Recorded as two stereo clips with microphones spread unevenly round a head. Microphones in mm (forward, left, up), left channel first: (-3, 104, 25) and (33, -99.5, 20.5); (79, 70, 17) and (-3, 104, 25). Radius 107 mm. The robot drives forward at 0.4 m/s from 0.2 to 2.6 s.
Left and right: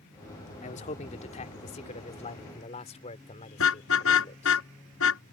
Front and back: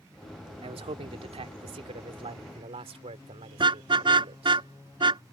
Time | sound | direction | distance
0.6 | a man speaking | 160° left | ?
3.6 | a car horn | 130° left | ?